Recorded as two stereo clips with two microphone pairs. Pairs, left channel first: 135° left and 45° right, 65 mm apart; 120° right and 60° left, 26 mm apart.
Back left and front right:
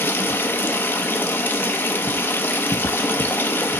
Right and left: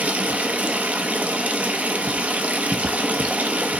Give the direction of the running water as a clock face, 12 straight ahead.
9 o'clock.